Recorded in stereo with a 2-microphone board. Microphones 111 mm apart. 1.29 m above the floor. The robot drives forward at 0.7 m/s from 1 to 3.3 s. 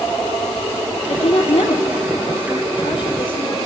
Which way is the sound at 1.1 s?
70° left (ahead or behind).